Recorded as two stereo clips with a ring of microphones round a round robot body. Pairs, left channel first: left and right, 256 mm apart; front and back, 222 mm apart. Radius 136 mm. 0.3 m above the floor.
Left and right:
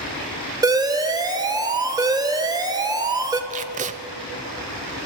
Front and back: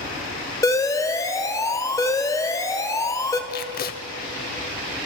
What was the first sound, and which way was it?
An alarm, 45° right.